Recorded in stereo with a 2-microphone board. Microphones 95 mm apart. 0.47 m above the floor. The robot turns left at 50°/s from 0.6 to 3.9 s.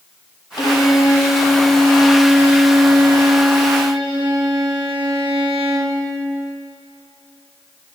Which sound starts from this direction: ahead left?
A violin, at 0.6 s.